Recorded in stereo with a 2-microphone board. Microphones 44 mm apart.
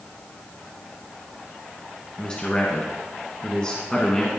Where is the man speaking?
20° left (ahead or behind), 1.4 m.